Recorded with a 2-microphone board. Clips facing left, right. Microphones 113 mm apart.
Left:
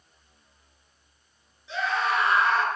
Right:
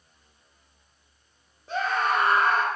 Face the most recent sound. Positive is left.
turn(degrees=-50)  # may be behind; listen again after turning